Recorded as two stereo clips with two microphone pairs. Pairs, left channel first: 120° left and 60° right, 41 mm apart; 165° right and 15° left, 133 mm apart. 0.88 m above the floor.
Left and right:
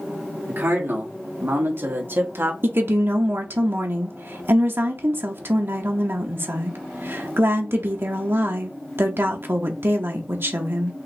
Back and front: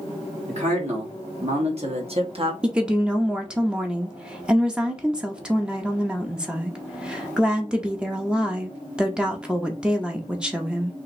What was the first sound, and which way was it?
A man speaking, 20° right.